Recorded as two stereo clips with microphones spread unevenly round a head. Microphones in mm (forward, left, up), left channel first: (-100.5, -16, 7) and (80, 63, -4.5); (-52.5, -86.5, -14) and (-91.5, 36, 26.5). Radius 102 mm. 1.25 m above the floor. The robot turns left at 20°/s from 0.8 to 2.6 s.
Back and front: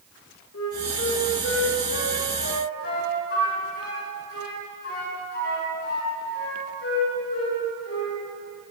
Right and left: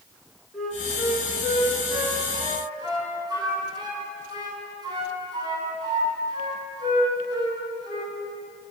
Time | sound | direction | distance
0.5 | a flute | 160° right | 10 m